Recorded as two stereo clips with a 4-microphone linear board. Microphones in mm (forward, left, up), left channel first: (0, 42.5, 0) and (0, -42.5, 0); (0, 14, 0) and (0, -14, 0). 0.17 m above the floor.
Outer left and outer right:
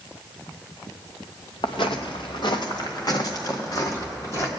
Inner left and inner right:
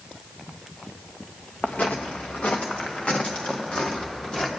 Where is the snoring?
I don't hear snoring.